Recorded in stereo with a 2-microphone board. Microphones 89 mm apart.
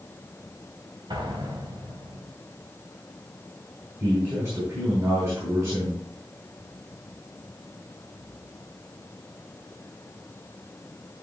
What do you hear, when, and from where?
1.1 s an explosion: 60° right (ahead or behind), 3 m
4.0 s a man speaking: 30° right (ahead or behind), 4.5 m